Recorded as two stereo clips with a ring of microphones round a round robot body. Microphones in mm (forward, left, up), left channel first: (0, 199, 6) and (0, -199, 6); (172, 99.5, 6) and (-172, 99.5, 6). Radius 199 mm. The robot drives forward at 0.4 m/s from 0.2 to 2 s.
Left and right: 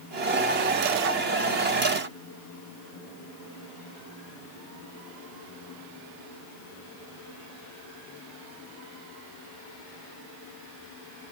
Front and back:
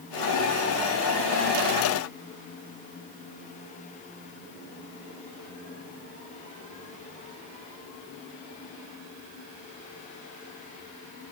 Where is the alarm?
No alarm in this recording.